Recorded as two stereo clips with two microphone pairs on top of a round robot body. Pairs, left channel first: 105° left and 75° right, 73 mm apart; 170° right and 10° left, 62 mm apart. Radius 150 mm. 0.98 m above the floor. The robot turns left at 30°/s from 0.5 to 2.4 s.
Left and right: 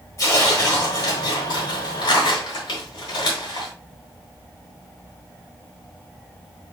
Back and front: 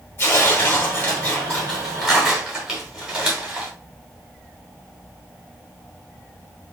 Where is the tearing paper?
155° left, 1.4 m; by 3.7 s 95° left, 1.4 m.